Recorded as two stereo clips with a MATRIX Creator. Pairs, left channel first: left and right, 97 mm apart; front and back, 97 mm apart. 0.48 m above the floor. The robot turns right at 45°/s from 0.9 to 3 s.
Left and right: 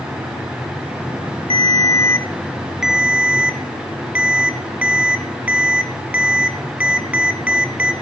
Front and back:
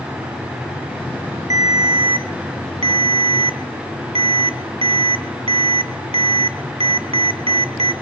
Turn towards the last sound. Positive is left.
turn(degrees=-165)